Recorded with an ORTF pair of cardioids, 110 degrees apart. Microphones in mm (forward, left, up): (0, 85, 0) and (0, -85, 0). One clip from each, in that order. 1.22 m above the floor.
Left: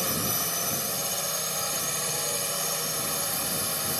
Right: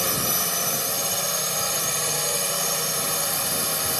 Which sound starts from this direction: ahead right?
A drone, at 0.0 s.